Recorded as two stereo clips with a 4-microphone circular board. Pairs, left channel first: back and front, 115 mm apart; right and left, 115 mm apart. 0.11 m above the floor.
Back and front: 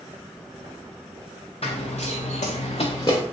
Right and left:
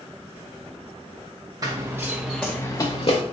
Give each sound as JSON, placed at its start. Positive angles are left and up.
{"t": 1.6, "sound": "running footsteps", "azimuth_deg": 150, "distance_m": 0.8}